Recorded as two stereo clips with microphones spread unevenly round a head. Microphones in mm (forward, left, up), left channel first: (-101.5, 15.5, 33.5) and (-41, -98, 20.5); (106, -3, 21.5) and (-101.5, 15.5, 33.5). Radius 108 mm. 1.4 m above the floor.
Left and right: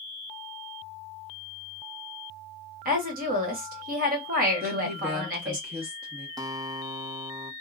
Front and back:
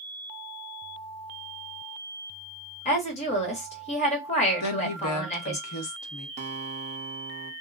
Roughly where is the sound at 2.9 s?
Ahead right.